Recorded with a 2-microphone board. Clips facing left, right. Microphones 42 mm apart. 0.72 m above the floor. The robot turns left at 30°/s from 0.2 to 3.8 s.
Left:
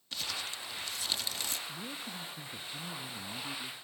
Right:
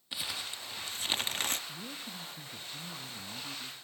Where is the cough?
I don't hear a cough.